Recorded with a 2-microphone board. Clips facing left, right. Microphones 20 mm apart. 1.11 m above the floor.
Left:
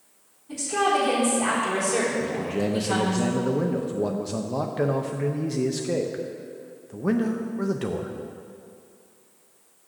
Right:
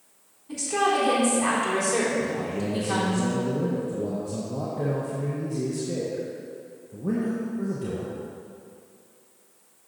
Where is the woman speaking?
5° right (ahead or behind), 3 m.